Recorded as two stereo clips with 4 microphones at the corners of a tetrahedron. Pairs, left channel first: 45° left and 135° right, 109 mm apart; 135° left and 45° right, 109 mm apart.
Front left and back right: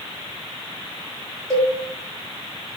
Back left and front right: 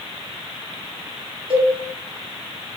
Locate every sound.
1.5 s a cowbell: 40° right, 0.9 m